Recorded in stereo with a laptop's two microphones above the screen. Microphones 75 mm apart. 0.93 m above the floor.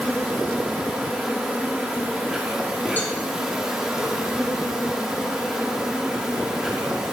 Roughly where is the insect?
Centre.